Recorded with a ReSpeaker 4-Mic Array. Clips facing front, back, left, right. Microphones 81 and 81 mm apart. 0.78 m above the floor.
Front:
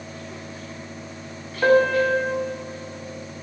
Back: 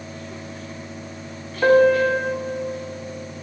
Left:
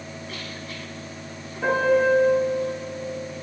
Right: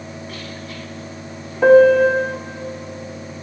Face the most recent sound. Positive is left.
turn(degrees=-95)